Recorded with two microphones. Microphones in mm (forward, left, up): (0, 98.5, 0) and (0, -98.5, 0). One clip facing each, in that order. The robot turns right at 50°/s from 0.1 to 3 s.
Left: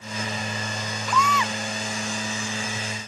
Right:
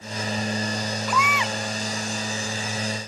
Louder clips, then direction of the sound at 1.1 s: Left 4 dB; 5° right (ahead or behind).